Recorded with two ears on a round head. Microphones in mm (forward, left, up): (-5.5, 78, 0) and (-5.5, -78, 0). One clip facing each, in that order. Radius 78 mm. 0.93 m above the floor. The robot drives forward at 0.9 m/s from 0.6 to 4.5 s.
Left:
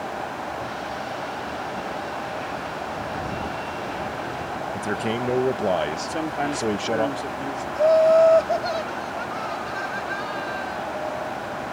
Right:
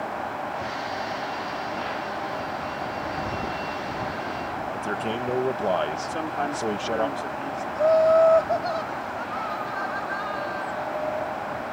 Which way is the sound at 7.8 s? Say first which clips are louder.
Left 2 dB; 30° left (ahead or behind).